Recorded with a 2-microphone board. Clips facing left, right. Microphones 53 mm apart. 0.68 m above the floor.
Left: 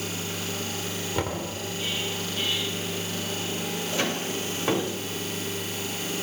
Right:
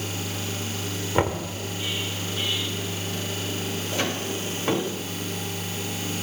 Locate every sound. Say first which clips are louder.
1.1 s knocking: right 7 dB; 35° right (ahead or behind), 1.7 m